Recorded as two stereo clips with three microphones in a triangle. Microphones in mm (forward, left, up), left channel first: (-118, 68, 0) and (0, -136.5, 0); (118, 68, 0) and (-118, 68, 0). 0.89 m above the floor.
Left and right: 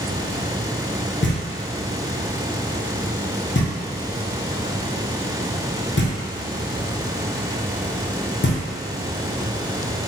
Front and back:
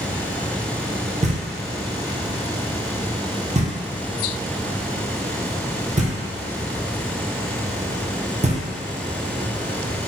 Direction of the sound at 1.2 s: 125° left.